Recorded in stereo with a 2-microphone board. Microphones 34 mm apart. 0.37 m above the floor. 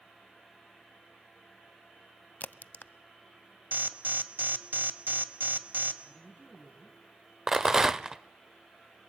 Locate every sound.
2.4 s a crack: 65° left (ahead or behind), 0.5 m
3.7 s an alarm: 65° right (ahead or behind), 1.2 m
6.0 s a woman speaking: 50° left (ahead or behind), 6.5 m
7.5 s a rattle: 15° right (ahead or behind), 0.5 m